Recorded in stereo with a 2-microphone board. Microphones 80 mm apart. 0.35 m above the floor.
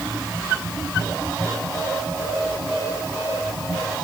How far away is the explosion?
I don't hear an explosion.